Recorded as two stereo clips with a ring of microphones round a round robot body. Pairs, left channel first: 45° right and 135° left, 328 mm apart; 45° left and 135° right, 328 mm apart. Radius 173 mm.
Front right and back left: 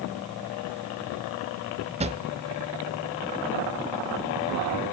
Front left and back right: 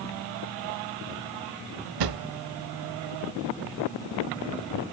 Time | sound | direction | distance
2.0 | a drawer | 155° right | 1.0 m